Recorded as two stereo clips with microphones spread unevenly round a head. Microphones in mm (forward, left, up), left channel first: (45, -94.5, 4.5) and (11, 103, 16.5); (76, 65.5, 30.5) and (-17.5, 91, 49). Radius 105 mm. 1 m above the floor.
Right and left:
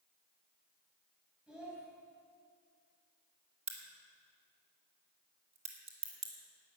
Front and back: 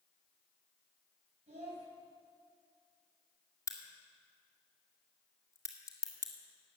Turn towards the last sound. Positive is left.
turn(degrees=40)